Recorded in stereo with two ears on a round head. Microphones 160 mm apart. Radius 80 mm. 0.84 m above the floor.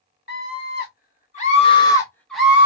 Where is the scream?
60° left (ahead or behind), 1.4 m; by 2.7 s 15° right (ahead or behind), 0.8 m.